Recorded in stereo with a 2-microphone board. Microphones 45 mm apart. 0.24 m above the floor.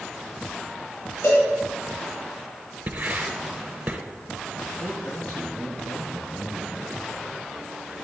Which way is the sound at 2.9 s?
50° right (ahead or behind).